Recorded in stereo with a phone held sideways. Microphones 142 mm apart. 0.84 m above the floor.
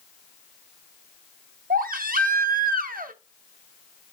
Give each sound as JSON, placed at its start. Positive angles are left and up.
{"t": 1.7, "sound": "a baby crying", "side_deg": -85, "distance_m": 0.9}